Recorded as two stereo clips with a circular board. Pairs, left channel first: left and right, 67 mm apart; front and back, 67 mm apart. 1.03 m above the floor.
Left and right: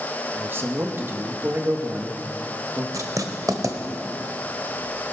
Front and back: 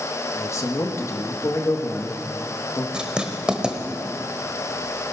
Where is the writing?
105° right, 1.4 m.